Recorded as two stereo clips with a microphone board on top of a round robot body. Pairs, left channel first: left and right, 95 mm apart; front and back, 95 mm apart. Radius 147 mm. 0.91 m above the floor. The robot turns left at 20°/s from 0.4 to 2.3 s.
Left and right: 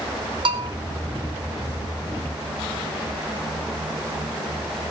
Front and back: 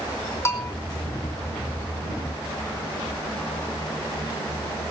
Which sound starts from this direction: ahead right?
A bell, at 0.5 s.